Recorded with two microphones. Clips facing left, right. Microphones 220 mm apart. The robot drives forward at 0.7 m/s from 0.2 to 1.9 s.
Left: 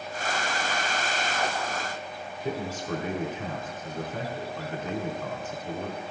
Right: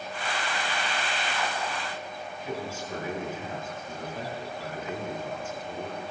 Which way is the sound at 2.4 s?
80° left.